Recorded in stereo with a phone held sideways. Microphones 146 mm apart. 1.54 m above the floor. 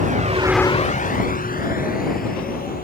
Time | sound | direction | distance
0.0 | a vehicle | 70° right (ahead or behind) | ?